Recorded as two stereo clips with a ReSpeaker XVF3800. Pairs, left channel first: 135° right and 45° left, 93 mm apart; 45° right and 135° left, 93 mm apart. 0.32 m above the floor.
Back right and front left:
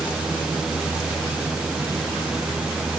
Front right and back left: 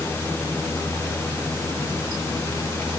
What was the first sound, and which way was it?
Only background noise.